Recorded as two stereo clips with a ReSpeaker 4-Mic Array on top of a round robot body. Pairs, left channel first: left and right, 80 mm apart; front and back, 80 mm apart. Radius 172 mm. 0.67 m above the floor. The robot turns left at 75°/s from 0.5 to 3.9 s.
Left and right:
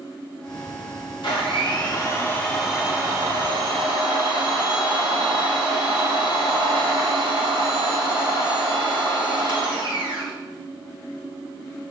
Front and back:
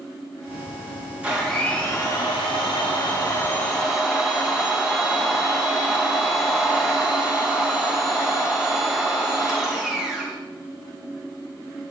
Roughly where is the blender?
Left.